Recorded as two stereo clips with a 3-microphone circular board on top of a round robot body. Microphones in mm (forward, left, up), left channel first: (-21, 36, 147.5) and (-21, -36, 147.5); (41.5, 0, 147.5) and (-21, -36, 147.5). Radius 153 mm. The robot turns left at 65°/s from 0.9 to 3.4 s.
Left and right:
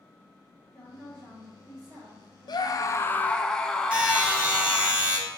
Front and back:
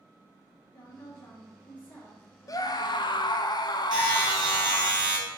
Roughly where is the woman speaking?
Ahead left.